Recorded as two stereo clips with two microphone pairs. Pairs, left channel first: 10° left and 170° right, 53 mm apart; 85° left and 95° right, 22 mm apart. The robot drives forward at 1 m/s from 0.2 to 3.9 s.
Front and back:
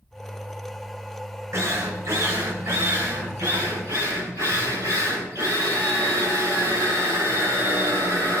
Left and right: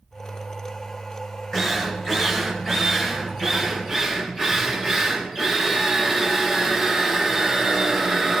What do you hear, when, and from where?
1.5 s a drill: 160° left, 3 m; by 8.4 s 170° left, 5 m